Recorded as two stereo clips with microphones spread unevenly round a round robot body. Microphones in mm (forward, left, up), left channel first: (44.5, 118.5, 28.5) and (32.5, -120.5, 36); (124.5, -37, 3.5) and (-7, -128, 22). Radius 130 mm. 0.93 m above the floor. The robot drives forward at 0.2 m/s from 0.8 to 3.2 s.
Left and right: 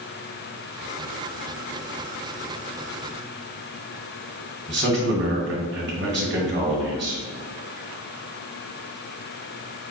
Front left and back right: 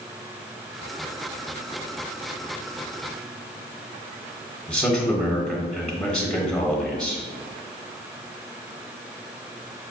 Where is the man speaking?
50° right, 1.0 m.